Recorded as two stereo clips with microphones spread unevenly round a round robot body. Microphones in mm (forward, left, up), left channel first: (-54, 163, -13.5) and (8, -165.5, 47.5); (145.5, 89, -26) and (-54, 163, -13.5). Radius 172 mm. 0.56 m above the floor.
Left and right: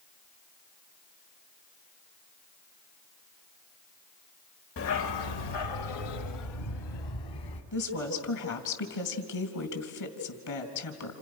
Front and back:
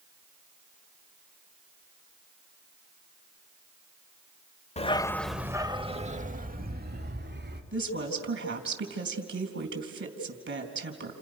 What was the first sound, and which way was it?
A dog barking, 45° left.